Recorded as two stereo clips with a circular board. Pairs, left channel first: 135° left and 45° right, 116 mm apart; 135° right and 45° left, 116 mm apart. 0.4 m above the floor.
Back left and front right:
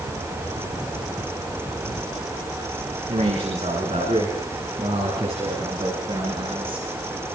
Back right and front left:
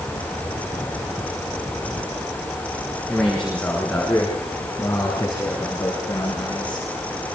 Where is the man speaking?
50° right, 5.5 m; by 6.9 s 85° right, 6 m.